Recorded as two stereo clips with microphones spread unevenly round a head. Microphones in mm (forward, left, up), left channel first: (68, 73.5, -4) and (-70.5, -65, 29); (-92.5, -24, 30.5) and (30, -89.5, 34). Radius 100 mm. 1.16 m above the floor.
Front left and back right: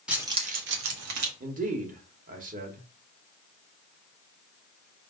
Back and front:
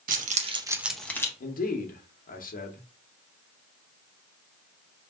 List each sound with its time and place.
0.1 s keys jangling: 50° right, 1.0 m; by 1.3 s 135° right, 1.2 m
1.4 s a man speaking: 170° left, 1.1 m